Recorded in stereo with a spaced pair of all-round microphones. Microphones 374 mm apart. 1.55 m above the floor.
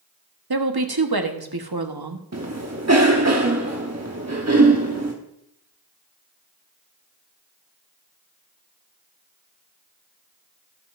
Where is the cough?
45° right (ahead or behind), 1.0 m.